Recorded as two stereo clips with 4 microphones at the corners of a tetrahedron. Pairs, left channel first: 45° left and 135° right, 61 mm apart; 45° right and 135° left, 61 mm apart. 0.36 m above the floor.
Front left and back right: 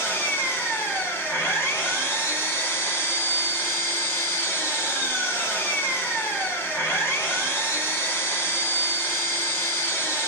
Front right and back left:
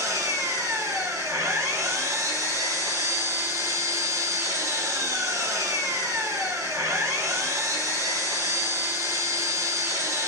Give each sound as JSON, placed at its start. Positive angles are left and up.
{"t": 0.0, "sound": "an engine running", "azimuth_deg": 100, "distance_m": 3.5}